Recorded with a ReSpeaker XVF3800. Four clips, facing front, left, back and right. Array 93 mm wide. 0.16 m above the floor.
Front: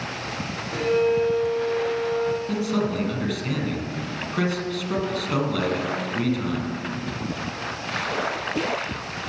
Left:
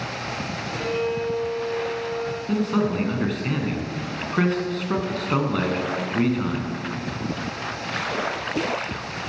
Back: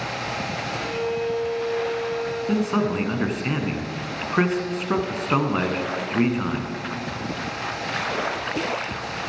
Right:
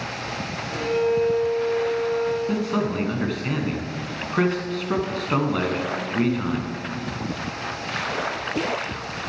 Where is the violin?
10° right, 3.5 m.